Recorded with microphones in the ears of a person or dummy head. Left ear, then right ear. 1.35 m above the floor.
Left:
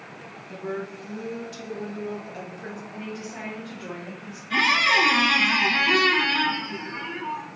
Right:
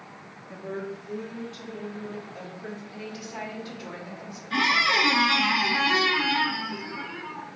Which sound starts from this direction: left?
A woman speaking, at 0.5 s.